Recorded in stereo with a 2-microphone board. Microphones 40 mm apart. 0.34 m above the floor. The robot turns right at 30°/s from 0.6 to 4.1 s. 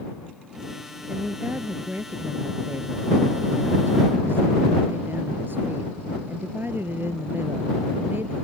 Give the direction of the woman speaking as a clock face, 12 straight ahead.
5 o'clock.